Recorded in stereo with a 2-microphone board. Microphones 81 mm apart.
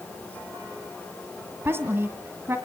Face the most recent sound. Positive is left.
turn(degrees=-30)  # may be behind; listen again after turning